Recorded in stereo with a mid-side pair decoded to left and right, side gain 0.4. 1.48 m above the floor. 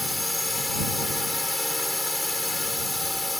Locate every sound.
0.0 s a drone: 15° left